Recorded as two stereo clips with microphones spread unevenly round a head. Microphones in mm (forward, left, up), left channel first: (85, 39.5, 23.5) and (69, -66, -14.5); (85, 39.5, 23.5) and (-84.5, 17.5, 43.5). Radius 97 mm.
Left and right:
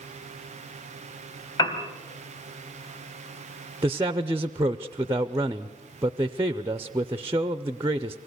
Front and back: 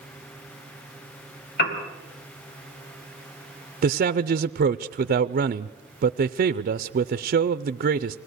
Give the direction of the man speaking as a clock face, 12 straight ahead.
5 o'clock.